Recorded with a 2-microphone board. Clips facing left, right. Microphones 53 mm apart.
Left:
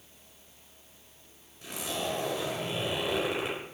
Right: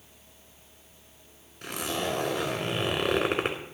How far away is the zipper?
About 2.5 m.